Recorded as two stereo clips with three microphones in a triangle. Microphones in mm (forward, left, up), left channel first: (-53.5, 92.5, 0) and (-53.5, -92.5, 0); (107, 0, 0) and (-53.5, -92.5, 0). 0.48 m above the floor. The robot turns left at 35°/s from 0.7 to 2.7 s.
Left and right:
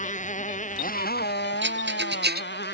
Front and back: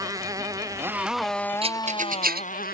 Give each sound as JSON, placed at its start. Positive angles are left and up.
{"t": 0.0, "sound": "a motorcycle", "azimuth_deg": 140}
{"t": 1.6, "sound": "a rattle", "azimuth_deg": -90}